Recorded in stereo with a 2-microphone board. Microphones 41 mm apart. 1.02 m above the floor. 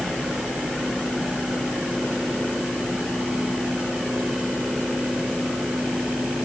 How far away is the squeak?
No squeak in this recording.